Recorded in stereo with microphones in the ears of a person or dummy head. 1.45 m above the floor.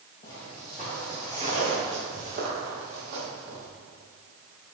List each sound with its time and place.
0.2 s footsteps: 20° left (ahead or behind), 1.5 m; by 3.7 s 60° right (ahead or behind), 3 m